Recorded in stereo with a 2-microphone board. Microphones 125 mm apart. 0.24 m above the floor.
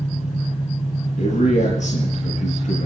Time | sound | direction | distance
0.0 | an engine running | 75° left (ahead or behind) | 4 m
1.2 | a man speaking | 75° left (ahead or behind) | 5.5 m